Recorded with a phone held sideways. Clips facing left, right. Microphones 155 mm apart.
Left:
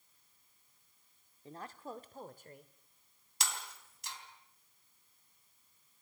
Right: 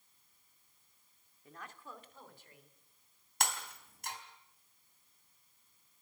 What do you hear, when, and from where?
1.4 s a woman speaking: 30° left (ahead or behind), 1.9 m; by 2.7 s 50° left (ahead or behind), 3 m
3.4 s breaking glass: 55° right (ahead or behind), 4 m